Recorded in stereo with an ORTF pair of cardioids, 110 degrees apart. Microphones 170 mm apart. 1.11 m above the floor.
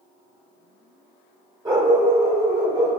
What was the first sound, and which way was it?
A dog barking, 20° right.